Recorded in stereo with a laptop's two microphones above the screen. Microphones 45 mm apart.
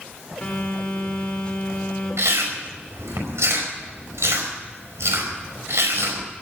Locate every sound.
0.4 s a phone buzzing: 25° left (ahead or behind), 3.5 m
2.2 s chewing: 90° right, 5 m